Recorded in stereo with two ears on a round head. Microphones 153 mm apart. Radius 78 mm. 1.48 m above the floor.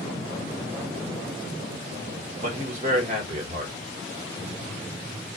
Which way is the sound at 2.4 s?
45° right (ahead or behind).